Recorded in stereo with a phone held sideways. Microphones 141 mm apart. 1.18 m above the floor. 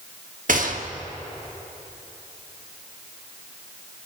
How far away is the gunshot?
About 1.2 m.